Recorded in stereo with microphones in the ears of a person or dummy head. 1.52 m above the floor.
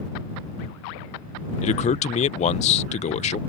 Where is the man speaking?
35° left (ahead or behind).